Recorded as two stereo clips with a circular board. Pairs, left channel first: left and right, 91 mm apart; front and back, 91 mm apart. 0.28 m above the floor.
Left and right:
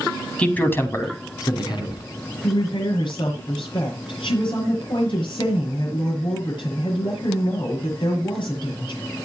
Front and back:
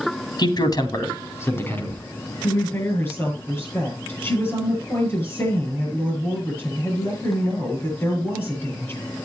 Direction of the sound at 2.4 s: 65° left.